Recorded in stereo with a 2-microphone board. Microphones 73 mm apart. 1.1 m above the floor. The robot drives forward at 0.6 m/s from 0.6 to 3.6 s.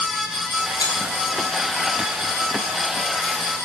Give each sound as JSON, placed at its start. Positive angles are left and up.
{"t": 0.8, "sound": "cutlery clinking", "side_deg": 85, "distance_m": 4.5}